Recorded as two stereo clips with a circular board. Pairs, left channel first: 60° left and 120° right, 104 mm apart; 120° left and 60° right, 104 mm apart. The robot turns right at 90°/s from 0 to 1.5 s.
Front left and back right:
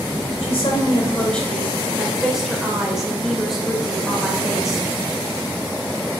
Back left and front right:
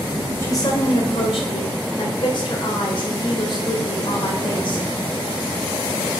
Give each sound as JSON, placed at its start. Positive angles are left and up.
{"t": 0.4, "sound": "a woman speaking", "azimuth_deg": 55, "distance_m": 2.5}